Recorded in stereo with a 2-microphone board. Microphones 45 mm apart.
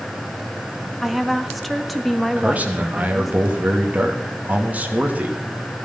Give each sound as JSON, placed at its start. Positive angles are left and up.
{"t": 1.0, "sound": "a woman speaking", "side_deg": 0, "distance_m": 1.4}
{"t": 2.4, "sound": "a man speaking", "side_deg": -35, "distance_m": 2.5}